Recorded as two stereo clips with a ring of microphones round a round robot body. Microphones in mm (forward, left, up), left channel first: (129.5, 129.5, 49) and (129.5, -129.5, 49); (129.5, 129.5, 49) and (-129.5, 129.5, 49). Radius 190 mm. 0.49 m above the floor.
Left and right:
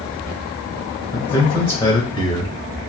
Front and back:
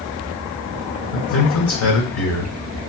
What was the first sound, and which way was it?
A man speaking, 20° left.